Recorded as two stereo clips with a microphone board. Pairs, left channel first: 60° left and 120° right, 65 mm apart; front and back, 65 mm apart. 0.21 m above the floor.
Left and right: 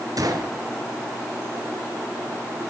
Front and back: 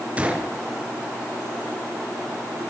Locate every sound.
0.2 s a gunshot: 110° right, 4 m